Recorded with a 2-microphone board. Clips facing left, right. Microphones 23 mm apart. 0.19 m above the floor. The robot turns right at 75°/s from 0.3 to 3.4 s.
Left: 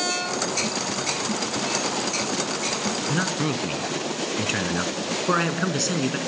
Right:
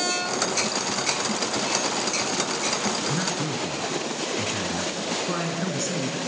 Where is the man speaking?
20° left (ahead or behind), 1.6 m; by 6.2 s 35° left (ahead or behind), 1.6 m.